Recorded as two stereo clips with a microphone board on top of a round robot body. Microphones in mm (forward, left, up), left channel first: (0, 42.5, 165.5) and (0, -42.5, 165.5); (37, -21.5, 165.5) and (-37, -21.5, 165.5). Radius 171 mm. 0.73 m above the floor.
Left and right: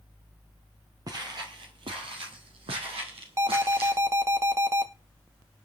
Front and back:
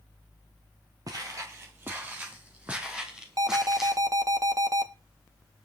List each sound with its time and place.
1.1 s footsteps: 140° right, 1.5 m; by 4.0 s 95° right, 3 m
3.4 s an alarm: 145° right, 1.6 m